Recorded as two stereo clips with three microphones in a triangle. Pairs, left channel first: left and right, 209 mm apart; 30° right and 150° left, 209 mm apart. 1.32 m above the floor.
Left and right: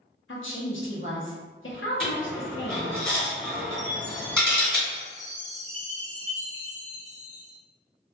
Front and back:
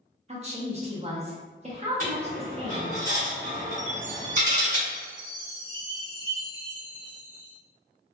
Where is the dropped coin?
175° left, 1.7 m.